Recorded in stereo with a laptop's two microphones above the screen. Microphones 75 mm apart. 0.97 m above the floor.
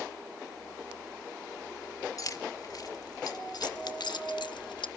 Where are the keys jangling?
50° left (ahead or behind), 1.7 m; by 4.9 s 80° left, 0.5 m.